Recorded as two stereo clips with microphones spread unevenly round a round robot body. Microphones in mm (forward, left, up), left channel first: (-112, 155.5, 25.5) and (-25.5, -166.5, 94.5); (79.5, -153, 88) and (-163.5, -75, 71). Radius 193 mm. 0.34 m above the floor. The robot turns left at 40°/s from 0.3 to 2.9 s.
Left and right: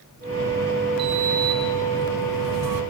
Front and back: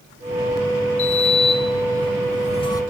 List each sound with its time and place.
1.0 s a sliding door: 25° right, 1.7 m; by 2.8 s 95° right, 1.7 m